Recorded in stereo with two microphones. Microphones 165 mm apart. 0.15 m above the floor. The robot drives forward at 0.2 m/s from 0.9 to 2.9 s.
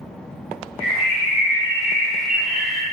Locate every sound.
0.8 s a bird: 40° left (ahead or behind), 0.8 m; by 2.8 s 30° left (ahead or behind), 0.9 m